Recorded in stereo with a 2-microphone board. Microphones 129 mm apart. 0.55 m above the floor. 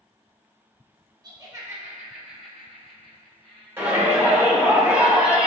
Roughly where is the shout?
Centre.